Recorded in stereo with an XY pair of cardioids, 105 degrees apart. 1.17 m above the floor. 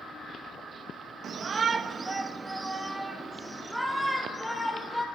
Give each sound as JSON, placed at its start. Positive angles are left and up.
{"t": 1.2, "sound": "a shout", "azimuth_deg": -50, "distance_m": 1.3}